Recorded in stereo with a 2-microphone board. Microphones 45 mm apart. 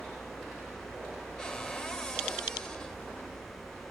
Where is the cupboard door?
10° left (ahead or behind), 0.8 m.